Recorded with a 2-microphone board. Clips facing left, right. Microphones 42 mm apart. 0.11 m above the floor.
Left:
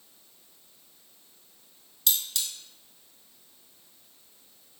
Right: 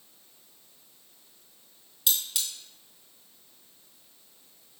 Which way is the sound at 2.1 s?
15° right (ahead or behind).